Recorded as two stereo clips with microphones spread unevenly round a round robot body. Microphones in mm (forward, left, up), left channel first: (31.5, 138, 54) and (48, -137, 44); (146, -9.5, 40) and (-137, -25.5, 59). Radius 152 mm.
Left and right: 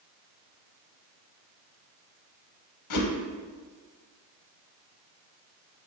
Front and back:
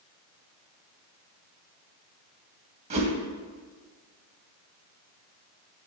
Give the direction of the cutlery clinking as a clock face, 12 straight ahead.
I don't hear cutlery clinking.